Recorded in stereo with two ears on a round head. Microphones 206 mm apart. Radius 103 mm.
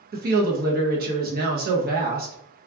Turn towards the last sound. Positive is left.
turn(degrees=-40)  # may be behind; listen again after turning